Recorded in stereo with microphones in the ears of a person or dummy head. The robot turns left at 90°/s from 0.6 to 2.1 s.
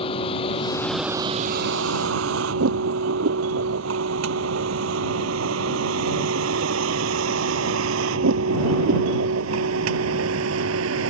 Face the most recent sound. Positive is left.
turn(degrees=-80)